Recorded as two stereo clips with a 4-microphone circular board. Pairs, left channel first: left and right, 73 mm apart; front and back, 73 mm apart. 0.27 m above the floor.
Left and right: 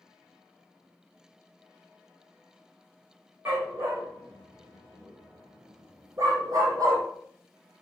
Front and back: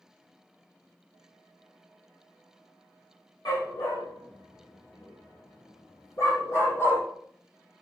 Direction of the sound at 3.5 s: 35° right.